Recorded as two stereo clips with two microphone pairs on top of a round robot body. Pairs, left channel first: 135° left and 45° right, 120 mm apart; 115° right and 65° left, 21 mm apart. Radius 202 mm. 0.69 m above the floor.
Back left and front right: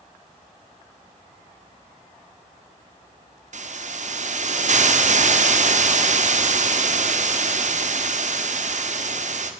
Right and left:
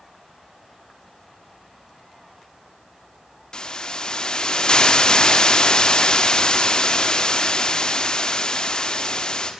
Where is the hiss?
55° right, 2 m.